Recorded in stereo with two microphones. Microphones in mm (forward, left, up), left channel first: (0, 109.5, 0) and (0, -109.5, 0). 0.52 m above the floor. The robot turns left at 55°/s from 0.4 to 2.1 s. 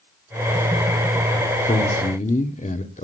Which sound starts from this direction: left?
A man speaking, at 1.7 s.